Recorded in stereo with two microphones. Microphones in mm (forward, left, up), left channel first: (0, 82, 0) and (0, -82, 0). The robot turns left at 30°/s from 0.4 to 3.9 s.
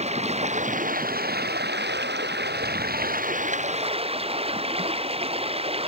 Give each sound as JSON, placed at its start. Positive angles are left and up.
{"t": 0.0, "sound": "running water", "azimuth_deg": -40}